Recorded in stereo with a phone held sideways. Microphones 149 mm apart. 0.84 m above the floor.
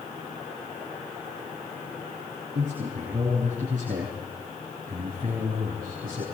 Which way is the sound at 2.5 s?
55° right (ahead or behind).